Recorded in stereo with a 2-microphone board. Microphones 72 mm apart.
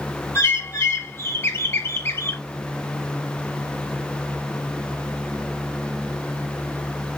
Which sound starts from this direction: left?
A bird, at 0.3 s.